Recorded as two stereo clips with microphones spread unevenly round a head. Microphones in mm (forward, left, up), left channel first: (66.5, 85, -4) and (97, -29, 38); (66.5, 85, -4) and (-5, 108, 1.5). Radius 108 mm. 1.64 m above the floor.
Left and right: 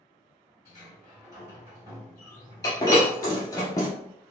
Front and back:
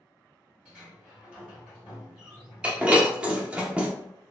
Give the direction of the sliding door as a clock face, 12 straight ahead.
3 o'clock.